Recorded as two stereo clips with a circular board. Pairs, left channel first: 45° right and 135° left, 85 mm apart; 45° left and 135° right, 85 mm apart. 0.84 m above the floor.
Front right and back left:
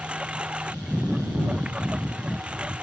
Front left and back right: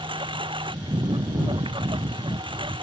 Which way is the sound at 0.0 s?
145° right.